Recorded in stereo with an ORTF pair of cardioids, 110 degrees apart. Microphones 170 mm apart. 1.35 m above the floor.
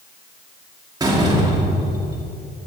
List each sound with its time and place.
1.0 s a door slam: 20° right, 2 m